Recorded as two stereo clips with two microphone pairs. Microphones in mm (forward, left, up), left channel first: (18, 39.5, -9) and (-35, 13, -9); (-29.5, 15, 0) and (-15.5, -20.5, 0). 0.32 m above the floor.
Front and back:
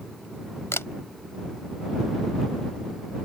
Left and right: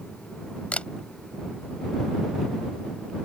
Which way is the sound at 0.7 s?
60° left.